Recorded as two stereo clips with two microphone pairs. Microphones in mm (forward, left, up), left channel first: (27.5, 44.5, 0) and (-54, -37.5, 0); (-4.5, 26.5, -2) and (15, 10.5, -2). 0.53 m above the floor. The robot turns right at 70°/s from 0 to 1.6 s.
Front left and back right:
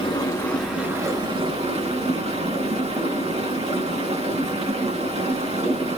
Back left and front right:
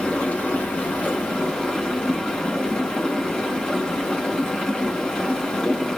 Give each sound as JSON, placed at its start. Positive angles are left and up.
{"t": 0.0, "sound": "running water", "azimuth_deg": 90, "distance_m": 4.0}